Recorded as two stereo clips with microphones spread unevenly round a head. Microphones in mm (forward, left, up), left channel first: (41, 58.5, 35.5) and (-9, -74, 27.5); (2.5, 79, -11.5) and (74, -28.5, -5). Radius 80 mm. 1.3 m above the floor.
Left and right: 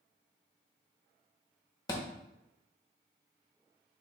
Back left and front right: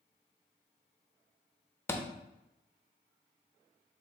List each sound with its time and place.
1.9 s a thud: 75° left, 0.7 m